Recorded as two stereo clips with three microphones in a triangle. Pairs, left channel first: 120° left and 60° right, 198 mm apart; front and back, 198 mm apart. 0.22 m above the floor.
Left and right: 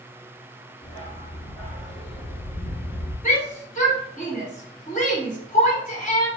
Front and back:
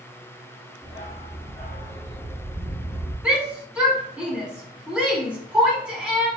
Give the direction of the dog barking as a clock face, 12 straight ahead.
9 o'clock.